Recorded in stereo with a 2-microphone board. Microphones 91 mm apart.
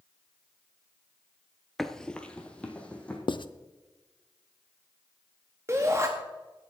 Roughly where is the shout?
Right.